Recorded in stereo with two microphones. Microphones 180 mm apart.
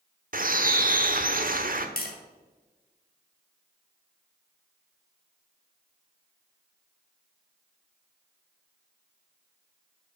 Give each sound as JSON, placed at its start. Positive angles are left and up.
{"t": 0.3, "sound": "a bird", "side_deg": -50, "distance_m": 1.0}
{"t": 2.0, "sound": "tapping", "side_deg": 55, "distance_m": 2.5}